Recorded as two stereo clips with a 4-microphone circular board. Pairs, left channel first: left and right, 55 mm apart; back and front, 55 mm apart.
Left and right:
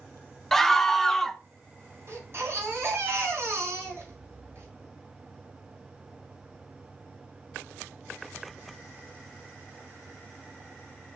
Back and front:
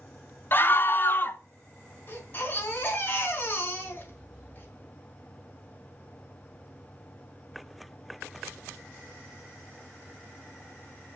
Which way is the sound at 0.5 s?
170° left.